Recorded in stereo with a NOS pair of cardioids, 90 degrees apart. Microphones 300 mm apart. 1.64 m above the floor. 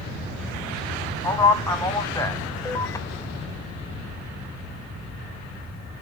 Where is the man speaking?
10° left, 0.6 m.